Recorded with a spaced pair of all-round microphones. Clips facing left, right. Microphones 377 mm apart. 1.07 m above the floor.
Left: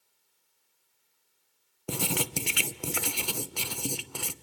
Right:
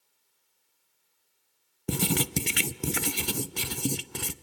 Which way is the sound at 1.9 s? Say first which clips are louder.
Right 4 dB; 30° right (ahead or behind).